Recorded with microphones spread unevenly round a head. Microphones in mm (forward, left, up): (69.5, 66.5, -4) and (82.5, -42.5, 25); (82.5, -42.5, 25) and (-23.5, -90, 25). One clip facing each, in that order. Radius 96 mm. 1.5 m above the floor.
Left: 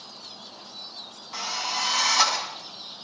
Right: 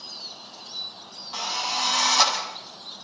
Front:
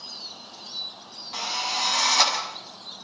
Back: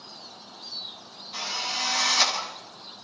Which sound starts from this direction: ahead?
A drill, at 1.3 s.